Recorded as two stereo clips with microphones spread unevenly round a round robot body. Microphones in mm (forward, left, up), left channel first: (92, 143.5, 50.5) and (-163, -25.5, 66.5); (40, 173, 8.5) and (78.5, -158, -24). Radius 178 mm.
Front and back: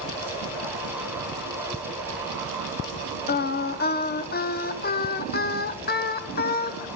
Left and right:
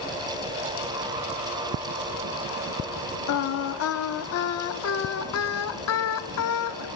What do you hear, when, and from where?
3.3 s singing: 70° left, 0.8 m